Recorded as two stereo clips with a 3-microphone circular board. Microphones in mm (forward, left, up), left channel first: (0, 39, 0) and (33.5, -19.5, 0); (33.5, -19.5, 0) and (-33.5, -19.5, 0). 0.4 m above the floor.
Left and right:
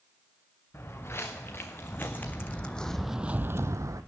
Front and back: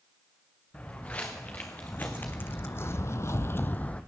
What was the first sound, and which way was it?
Footsteps, 70° left.